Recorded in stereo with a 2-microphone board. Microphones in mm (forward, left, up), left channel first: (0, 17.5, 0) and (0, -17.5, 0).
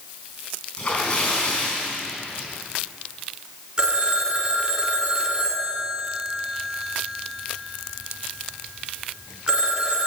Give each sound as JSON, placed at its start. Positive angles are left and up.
{"t": 0.8, "sound": "a splash", "side_deg": 30, "distance_m": 4.0}
{"t": 3.8, "sound": "a phone ringing", "side_deg": -20, "distance_m": 1.7}